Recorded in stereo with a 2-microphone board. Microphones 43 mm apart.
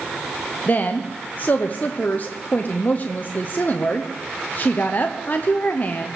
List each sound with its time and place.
0.7 s a woman speaking: 40° left (ahead or behind), 1.0 m